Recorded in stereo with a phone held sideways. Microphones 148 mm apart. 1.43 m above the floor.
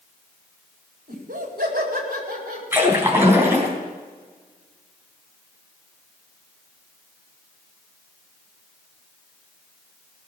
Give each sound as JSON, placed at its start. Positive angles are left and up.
{"t": 1.1, "sound": "laughter", "side_deg": -75, "distance_m": 4.5}
{"t": 2.7, "sound": "a splash", "side_deg": -15, "distance_m": 3.5}